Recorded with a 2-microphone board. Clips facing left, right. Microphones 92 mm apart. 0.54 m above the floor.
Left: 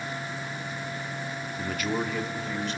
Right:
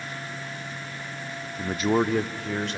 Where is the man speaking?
5° right (ahead or behind), 0.7 m; by 2.8 s 65° right (ahead or behind), 1.7 m.